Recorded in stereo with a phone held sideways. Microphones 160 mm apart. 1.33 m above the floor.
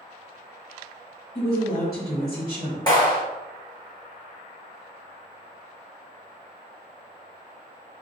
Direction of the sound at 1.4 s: 60° left (ahead or behind).